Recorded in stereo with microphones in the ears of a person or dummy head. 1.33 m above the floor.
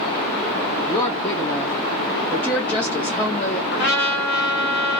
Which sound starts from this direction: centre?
A woman speaking, at 0.9 s.